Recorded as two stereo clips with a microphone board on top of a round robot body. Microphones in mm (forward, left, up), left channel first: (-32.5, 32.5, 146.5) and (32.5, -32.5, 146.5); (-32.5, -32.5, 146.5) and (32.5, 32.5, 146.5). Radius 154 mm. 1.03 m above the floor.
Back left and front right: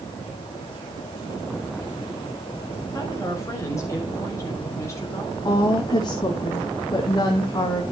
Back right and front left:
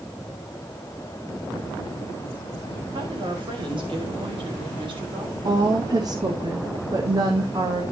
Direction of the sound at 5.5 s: 90° left.